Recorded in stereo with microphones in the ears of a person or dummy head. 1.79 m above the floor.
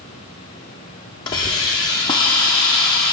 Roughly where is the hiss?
Centre.